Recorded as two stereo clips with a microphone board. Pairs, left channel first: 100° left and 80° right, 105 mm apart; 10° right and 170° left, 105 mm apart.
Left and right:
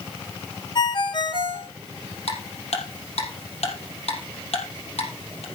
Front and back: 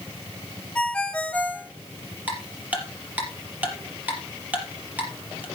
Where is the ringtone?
65° left, 1.8 m.